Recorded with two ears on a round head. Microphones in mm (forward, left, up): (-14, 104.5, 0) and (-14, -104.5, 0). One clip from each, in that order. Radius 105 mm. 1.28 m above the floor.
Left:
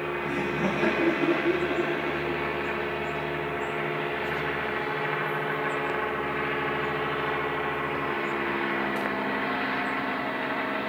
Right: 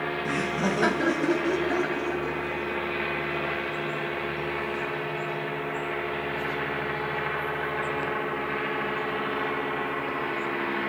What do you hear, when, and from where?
0.2 s laughter: 50° right (ahead or behind), 1.4 m; by 4.8 s 90° right, 7.5 m